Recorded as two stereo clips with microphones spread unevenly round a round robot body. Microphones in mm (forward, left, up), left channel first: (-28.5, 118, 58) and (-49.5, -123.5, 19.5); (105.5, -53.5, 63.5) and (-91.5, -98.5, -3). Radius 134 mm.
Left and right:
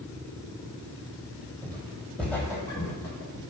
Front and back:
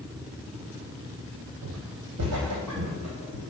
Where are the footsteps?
170° right, 0.9 m; by 3.4 s 145° left, 1.7 m.